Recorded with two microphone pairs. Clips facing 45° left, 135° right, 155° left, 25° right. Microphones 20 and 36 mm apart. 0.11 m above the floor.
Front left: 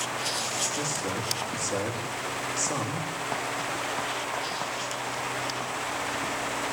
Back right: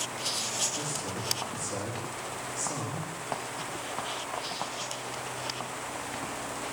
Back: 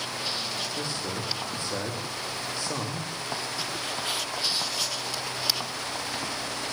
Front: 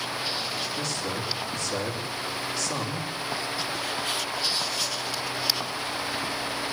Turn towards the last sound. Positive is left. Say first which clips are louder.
# front left 5 dB, front 2 dB
turn(degrees=90)